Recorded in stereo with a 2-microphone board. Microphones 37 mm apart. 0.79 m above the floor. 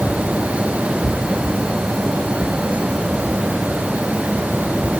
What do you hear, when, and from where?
Only background noise.